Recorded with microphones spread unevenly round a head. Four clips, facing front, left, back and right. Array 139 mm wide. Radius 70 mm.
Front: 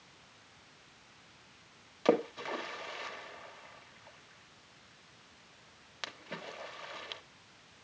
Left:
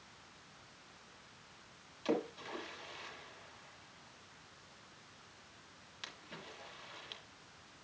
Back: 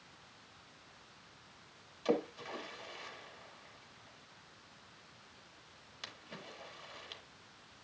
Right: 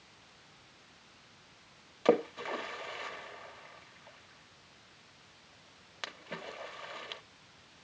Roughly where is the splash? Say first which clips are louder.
Right 9 dB, front 5 dB; ahead right.